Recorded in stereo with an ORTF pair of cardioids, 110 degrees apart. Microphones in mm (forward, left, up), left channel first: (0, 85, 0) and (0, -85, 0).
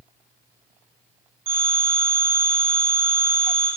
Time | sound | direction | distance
1.5 | a phone ringing | 60° right | 1.8 m